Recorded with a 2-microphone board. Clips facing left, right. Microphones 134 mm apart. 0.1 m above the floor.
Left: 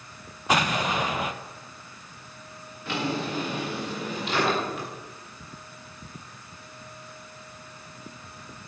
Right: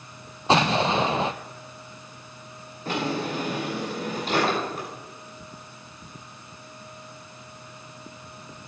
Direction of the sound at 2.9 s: 40° right (ahead or behind).